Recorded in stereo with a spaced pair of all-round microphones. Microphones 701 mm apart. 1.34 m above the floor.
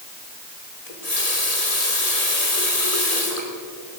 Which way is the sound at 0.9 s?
60° left (ahead or behind).